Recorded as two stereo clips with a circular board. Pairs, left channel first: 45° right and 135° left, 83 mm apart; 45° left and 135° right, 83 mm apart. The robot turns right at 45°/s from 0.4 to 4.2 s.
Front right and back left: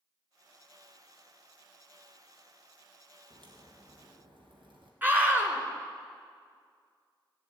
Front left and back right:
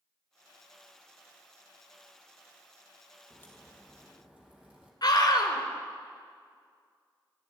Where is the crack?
105° left, 3 m; by 4.9 s 145° left, 3 m.